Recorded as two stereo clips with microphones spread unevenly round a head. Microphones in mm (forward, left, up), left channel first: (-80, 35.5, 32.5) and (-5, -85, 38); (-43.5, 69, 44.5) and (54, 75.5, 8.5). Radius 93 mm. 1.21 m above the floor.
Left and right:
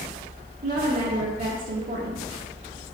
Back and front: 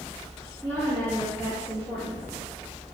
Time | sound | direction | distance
0.6 | a woman speaking | 85° right | 1.5 m